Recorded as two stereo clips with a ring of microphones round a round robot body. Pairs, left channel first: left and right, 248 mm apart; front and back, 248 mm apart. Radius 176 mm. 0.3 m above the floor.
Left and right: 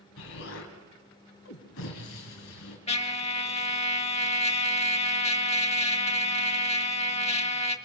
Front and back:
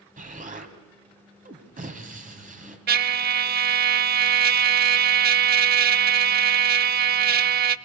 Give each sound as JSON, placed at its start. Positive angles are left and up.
{"t": 0.2, "sound": "an explosion", "azimuth_deg": 130, "distance_m": 2.5}
{"t": 2.9, "sound": "a trumpet", "azimuth_deg": 150, "distance_m": 0.6}